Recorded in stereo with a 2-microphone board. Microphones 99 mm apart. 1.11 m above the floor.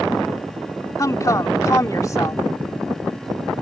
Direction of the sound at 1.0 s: 35° left (ahead or behind).